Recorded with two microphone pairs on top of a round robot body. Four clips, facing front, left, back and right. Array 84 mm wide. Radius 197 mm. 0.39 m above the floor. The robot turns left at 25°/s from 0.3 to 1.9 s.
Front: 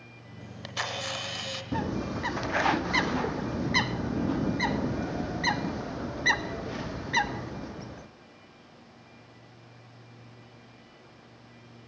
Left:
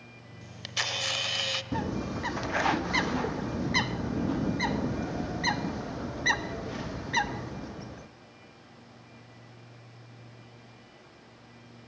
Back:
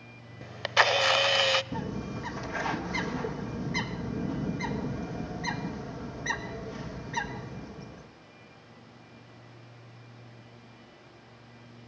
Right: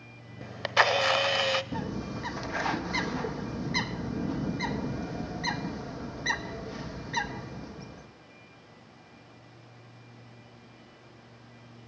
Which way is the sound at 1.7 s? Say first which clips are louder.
Left 3 dB, front 4 dB; 30° left.